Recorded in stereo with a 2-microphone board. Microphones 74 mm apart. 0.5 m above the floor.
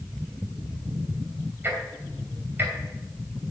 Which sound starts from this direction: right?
Ticking, at 1.6 s.